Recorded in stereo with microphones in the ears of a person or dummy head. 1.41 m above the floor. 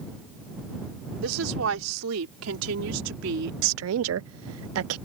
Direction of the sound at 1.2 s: 80° right.